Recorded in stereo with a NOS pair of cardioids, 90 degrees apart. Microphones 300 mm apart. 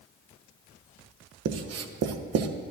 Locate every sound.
1.4 s writing: 55° right, 0.9 m